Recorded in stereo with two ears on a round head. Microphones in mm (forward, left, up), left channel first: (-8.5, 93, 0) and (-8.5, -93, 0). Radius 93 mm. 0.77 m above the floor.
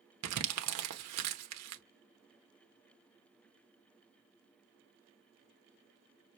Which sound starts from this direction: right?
Crumpling, at 0.2 s.